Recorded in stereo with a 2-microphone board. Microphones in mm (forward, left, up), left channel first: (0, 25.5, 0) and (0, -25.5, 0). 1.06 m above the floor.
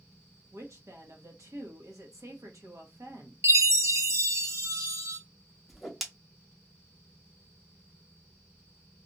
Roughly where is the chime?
Right.